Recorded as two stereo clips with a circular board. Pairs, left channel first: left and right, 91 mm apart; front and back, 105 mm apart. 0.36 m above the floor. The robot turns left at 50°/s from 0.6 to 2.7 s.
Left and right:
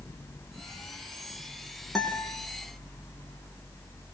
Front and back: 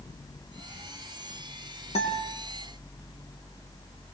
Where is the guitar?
5° left, 7.5 m; by 2.4 s 15° right, 7.5 m.